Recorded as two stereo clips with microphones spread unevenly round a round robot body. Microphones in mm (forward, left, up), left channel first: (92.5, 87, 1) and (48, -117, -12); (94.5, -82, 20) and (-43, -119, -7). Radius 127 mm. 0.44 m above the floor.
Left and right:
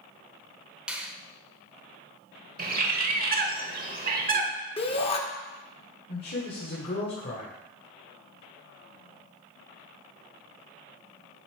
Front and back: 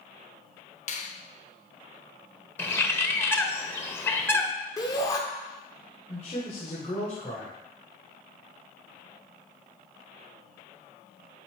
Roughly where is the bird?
Ahead right.